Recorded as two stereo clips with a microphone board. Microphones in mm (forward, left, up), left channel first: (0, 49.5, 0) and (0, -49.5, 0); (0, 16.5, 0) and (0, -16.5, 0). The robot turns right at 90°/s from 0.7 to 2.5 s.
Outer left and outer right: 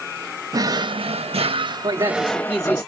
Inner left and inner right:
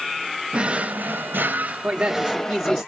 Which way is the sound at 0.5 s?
140° right.